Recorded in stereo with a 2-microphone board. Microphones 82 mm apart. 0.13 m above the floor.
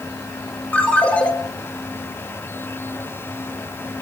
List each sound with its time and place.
0.7 s a ringtone: 20° left (ahead or behind), 1.9 m